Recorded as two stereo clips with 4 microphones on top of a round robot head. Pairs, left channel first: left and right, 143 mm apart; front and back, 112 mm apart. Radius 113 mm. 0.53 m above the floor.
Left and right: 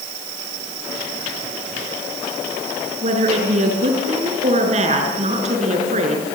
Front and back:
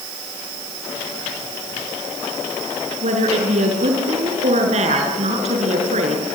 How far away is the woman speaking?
About 6.5 m.